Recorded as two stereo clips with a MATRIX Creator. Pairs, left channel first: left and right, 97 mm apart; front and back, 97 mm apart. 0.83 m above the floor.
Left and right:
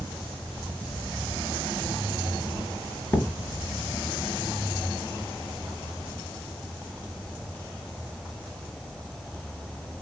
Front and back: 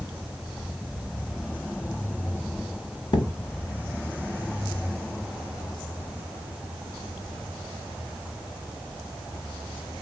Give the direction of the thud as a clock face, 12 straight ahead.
11 o'clock.